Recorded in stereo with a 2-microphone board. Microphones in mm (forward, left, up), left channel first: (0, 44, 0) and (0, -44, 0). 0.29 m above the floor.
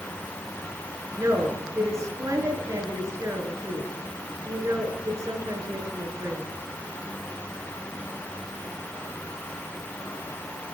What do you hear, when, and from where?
1.2 s a woman speaking: 40° right (ahead or behind), 3.5 m